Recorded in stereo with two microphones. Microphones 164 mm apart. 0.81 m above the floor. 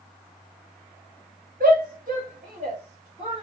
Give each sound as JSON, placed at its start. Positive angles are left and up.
{"t": 1.6, "sound": "a shout", "side_deg": -65, "distance_m": 3.0}